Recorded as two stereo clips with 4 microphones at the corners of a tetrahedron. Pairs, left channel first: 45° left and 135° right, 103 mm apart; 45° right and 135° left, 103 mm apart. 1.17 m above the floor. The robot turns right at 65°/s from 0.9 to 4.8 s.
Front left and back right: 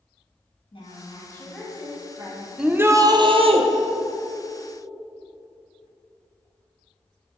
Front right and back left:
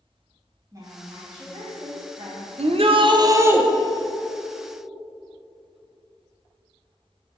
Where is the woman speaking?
80° left, 2.0 m; by 2.5 s 175° right, 2.0 m.